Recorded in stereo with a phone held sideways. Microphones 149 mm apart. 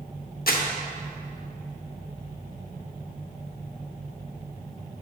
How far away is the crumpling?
About 0.8 m.